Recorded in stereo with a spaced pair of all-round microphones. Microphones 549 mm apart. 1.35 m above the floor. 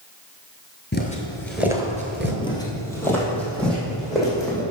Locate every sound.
0.9 s footsteps: 20° left (ahead or behind), 1.4 m; by 2.3 s 20° right (ahead or behind), 1.5 m
2.4 s footsteps: 10° left (ahead or behind), 1.7 m; by 4.6 s centre (ahead or behind), 4.5 m